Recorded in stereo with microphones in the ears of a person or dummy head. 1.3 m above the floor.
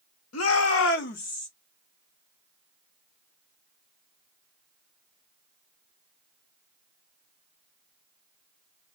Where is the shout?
80° left, 0.8 m; by 1.5 s 35° left (ahead or behind), 0.6 m.